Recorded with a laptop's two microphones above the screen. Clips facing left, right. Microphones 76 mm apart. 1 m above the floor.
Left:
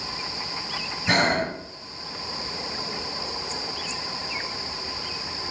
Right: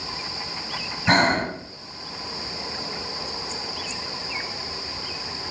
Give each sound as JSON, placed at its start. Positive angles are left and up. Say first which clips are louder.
{"t": 1.1, "sound": "breathing", "louder": "right 3 dB", "side_deg": -45, "distance_m": 1.1}